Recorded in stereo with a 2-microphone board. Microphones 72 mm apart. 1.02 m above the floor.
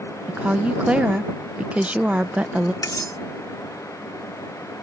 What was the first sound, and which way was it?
A woman speaking, 20° right (ahead or behind).